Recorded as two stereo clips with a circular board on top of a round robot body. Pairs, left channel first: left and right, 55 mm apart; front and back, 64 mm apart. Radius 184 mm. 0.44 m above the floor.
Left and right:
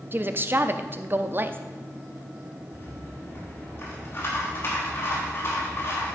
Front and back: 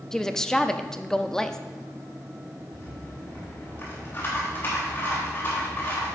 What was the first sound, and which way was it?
A woman speaking, 80° right.